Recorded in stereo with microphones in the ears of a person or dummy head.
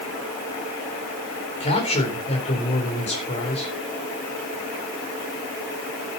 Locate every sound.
1.6 s a man speaking: 35° left (ahead or behind), 4 m